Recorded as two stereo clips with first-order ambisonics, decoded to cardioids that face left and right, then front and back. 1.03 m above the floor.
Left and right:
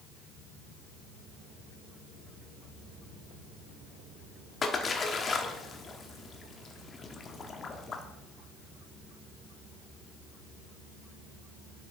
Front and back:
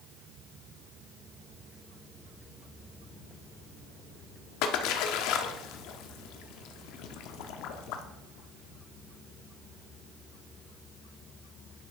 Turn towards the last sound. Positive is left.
turn(degrees=20)